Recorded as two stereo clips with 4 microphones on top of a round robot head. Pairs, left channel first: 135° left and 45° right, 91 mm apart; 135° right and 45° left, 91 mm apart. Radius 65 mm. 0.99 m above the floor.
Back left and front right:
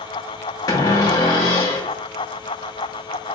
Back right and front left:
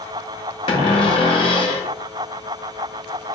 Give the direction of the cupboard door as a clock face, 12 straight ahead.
6 o'clock.